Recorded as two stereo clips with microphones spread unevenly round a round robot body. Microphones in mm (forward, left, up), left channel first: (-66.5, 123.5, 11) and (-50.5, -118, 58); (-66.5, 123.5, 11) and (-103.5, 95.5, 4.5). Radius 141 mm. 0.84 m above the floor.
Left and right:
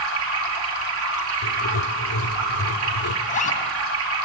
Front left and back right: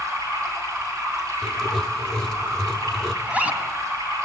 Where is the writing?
120° left, 1.5 m.